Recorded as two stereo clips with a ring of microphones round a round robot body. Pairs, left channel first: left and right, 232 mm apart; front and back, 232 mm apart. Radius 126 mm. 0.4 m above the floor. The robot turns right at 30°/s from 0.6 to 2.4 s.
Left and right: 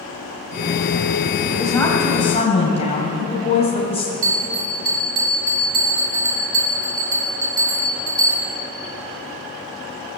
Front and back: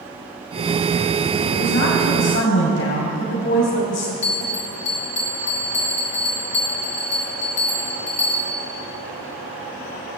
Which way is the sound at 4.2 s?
65° right.